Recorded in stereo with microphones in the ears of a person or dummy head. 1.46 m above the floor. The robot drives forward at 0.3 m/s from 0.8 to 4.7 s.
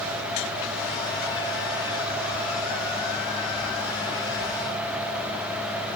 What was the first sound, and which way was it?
Only background noise.